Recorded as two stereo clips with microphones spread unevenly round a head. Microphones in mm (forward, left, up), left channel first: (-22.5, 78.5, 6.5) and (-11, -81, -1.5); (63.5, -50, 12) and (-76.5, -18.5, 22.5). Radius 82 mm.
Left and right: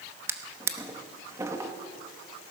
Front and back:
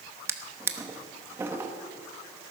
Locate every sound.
0.3 s a drawer: 145° right, 1.0 m